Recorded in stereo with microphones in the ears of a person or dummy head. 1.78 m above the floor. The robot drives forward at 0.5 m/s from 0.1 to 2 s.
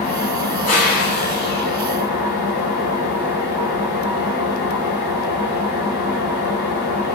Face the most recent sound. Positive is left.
turn(degrees=45)  # may be behind; listen again after turning